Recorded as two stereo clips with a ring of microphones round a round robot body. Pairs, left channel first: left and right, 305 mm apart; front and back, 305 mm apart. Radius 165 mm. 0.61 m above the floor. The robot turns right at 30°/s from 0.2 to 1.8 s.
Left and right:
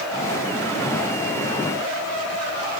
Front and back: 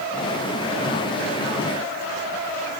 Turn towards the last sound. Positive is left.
No sound to turn to.